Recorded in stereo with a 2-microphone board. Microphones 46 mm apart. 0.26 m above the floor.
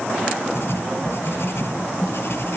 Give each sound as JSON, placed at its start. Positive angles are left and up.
{"t": 0.6, "sound": "writing", "side_deg": 55}